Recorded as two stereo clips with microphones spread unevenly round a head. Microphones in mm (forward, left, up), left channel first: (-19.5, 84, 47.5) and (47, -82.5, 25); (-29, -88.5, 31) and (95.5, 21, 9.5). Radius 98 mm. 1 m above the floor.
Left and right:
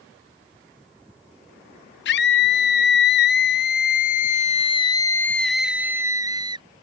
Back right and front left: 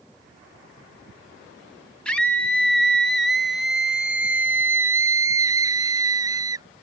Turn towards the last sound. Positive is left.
turn(degrees=-15)